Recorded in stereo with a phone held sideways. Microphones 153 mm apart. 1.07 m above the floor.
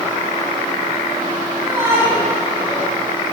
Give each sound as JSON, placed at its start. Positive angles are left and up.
{"t": 1.6, "sound": "a shout", "side_deg": -20, "distance_m": 9.0}